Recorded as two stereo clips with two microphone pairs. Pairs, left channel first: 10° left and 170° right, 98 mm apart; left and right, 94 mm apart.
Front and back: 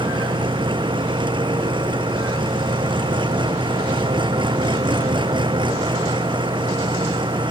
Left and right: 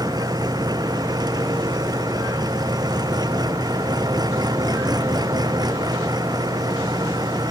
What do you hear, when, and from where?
0.0 s an engine running: 135° right